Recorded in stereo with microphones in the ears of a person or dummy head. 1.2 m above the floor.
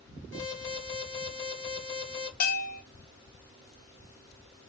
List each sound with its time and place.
0.3 s an alarm: 10° left (ahead or behind), 1.9 m
2.4 s a bell: 55° left (ahead or behind), 1.4 m